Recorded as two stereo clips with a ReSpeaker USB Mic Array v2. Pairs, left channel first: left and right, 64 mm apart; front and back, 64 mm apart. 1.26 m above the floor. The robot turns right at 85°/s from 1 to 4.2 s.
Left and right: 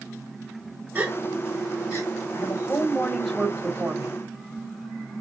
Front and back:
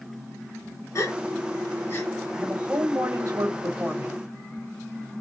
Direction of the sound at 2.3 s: 110° left.